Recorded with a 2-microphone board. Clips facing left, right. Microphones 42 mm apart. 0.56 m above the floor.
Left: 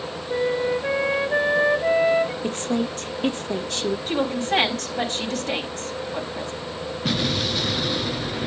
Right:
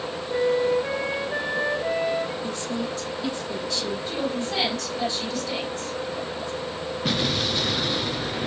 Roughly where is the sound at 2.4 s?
Left.